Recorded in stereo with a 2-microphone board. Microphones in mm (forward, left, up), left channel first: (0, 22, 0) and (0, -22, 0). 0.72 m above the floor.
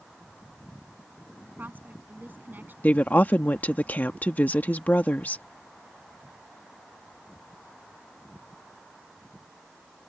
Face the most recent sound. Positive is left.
turn(degrees=40)  # may be behind; listen again after turning